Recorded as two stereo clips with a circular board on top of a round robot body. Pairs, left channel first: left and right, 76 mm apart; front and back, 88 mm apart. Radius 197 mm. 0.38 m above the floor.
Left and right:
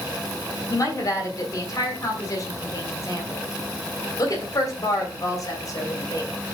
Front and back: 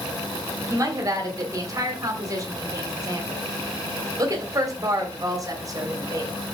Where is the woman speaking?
130° left, 3 m.